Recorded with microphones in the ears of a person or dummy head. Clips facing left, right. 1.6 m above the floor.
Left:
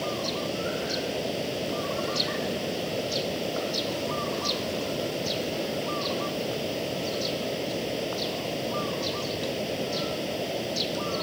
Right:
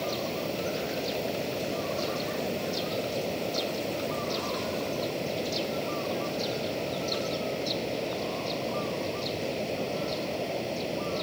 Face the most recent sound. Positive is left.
turn(degrees=10)  # may be behind; listen again after turning